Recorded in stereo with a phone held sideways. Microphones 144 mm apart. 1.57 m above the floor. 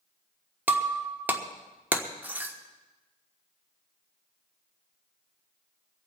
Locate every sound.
0.7 s breaking glass: 15° right (ahead or behind), 1.2 m